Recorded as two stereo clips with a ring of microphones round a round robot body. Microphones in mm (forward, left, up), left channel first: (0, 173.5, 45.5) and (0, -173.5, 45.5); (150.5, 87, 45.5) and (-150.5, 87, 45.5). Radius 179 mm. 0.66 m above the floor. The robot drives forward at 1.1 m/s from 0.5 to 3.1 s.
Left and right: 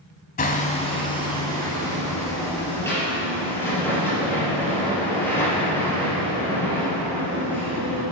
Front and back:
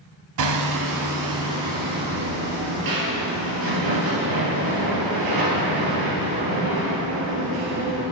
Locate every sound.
0.4 s hammering: 160° left, 1.1 m; by 8.0 s 175° left, 4 m